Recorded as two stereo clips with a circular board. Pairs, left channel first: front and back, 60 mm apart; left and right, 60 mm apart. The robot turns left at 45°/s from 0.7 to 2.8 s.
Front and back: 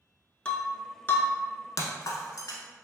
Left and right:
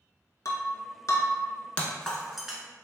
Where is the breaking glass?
70° left, 0.5 m; by 2.6 s 15° right, 0.5 m.